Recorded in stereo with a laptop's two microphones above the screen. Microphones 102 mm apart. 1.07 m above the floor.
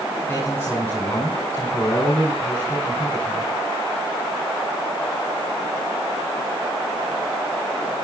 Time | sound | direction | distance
0.3 | a man speaking | 25° left (ahead or behind) | 4.5 m